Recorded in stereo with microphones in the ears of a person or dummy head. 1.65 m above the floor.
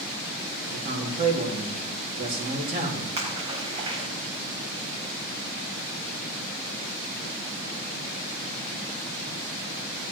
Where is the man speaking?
35° right (ahead or behind), 4 m.